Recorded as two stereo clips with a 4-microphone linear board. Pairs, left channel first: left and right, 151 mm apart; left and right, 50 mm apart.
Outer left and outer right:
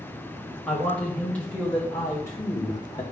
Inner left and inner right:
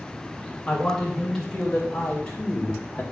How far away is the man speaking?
About 2.5 m.